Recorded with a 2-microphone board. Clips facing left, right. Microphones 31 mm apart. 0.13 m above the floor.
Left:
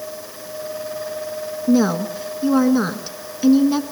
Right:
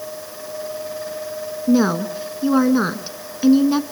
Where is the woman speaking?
15° right (ahead or behind), 1.2 m.